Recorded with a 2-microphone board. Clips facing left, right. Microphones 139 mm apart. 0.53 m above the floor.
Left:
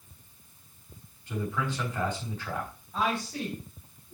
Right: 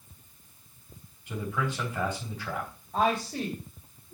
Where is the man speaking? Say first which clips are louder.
Even; 10° right (ahead or behind), 3.5 m.